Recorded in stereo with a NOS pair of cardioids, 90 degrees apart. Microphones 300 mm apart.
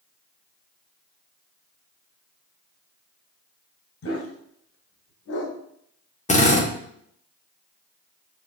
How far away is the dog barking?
About 2.5 m.